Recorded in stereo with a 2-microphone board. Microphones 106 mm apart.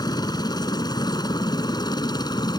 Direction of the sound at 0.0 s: 40° left (ahead or behind).